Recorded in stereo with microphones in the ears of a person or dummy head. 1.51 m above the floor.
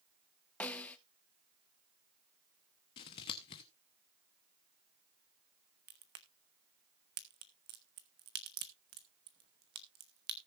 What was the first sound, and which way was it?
A snare drum, 5° left (ahead or behind).